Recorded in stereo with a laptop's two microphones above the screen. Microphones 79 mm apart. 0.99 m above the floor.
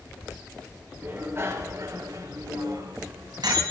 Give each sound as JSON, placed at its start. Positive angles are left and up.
{"t": 1.0, "sound": "a bicycle bell", "side_deg": -25, "distance_m": 2.5}